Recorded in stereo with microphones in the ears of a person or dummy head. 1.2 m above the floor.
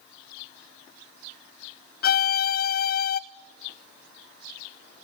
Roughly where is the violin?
Left.